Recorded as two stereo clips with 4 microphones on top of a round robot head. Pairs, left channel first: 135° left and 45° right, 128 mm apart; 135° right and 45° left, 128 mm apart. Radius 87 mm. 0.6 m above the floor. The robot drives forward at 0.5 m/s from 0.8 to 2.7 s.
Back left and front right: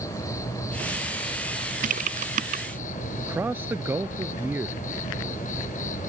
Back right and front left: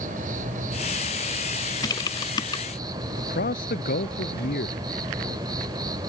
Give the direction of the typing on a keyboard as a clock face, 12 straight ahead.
2 o'clock.